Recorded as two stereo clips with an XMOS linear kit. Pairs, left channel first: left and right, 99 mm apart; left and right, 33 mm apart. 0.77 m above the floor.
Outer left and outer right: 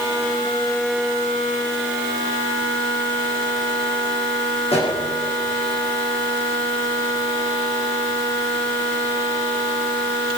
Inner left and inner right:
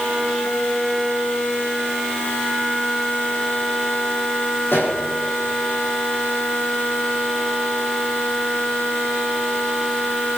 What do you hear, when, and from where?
4.7 s a pop: 85° left, 6 m